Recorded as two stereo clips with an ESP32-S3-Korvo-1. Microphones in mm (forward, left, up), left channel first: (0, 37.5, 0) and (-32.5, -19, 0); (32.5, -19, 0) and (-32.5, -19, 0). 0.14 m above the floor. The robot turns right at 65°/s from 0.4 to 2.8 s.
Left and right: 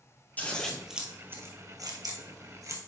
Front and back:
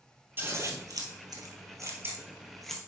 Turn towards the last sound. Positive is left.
turn(degrees=-80)